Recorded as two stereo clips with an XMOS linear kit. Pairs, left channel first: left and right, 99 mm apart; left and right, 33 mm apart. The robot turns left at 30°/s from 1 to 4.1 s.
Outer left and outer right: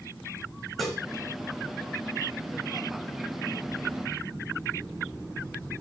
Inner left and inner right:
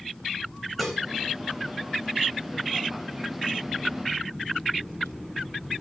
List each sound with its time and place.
0.8 s dishes clattering: centre (ahead or behind), 5 m